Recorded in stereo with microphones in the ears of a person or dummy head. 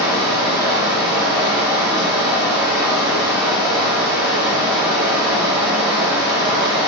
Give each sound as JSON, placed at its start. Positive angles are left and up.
{"t": 0.0, "sound": "running water", "side_deg": -10, "distance_m": 0.9}